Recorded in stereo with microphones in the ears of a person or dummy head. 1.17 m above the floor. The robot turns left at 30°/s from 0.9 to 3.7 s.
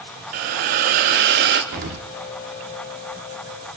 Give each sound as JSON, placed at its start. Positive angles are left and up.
{"t": 0.3, "sound": "a hiss", "side_deg": -45, "distance_m": 0.8}
{"t": 1.7, "sound": "an explosion", "side_deg": -35, "distance_m": 0.8}